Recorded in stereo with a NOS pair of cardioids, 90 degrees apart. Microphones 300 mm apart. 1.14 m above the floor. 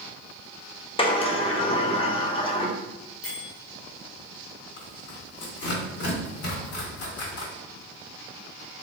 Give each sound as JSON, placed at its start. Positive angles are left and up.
{"t": 1.0, "sound": "a sliding door", "azimuth_deg": 20, "distance_m": 0.6}
{"t": 3.2, "sound": "a bell", "azimuth_deg": 55, "distance_m": 1.9}
{"t": 4.8, "sound": "tearing paper", "azimuth_deg": 70, "distance_m": 1.7}